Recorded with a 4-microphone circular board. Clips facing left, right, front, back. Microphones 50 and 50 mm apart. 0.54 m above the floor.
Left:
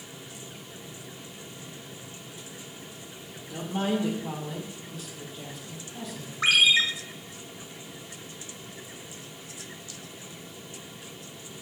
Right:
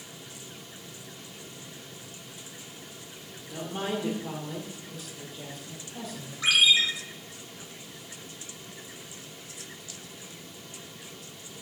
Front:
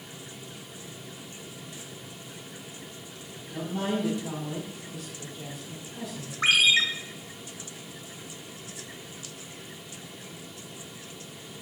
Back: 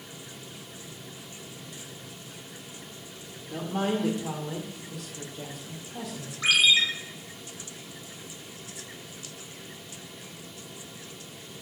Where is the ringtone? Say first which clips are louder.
Left 1 dB, even; 45° left, 1.4 m.